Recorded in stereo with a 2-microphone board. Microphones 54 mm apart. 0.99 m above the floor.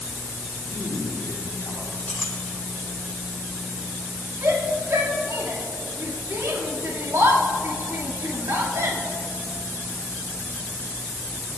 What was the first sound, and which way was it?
A man speaking, 55° left (ahead or behind).